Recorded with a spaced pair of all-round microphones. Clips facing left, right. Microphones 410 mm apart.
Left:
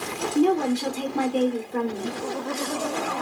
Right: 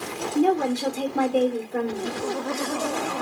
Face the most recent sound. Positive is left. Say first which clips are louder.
# left 1 dB
turn(degrees=10)  # may be behind; listen again after turning